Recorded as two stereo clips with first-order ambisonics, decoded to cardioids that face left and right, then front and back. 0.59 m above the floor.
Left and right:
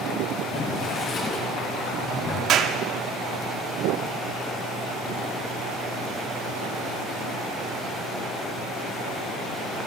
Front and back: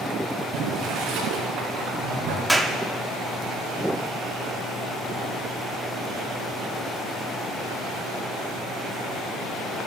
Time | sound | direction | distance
0.5 | boiling | 150° left | 4.5 m
2.5 | a clap | 95° right | 0.9 m